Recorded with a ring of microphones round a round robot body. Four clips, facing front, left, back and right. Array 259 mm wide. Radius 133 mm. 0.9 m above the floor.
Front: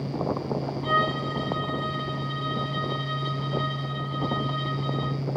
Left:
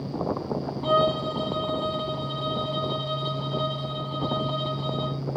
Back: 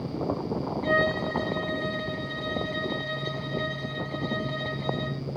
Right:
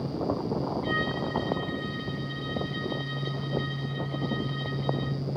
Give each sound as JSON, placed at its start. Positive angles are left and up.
{"t": 0.8, "sound": "a violin", "azimuth_deg": 120}